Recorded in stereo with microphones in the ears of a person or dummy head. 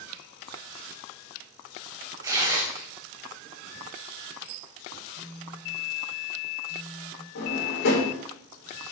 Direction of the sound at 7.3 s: 55° left (ahead or behind).